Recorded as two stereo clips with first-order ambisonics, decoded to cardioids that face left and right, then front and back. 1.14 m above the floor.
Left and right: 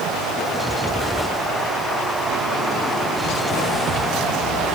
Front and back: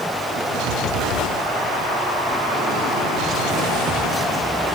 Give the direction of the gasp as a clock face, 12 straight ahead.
No gasp in this recording.